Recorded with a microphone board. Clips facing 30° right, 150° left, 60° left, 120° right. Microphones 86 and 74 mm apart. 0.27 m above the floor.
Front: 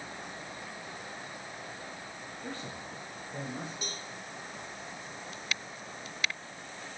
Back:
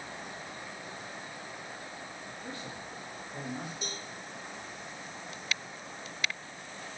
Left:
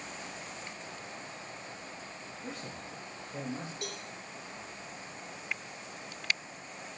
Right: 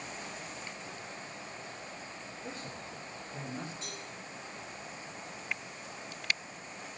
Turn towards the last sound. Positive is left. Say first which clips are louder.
# back 1 dB, left 3 dB
turn(degrees=60)